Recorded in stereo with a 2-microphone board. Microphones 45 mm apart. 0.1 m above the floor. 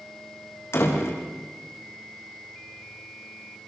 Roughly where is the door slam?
Left.